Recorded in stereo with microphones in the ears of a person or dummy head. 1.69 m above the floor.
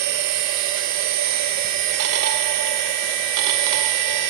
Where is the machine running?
60° right (ahead or behind), 1.4 m.